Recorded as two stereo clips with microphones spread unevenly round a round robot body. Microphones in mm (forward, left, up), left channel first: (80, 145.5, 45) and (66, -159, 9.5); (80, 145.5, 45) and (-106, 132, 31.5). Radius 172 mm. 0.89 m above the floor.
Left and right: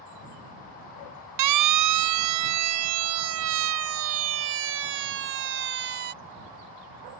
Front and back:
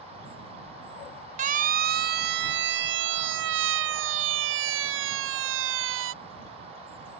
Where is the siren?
115° right; by 6.1 s 155° right.